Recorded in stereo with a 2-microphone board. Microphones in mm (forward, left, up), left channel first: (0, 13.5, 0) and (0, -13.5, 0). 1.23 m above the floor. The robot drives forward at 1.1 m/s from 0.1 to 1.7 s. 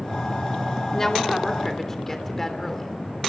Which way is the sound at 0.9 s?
25° left (ahead or behind).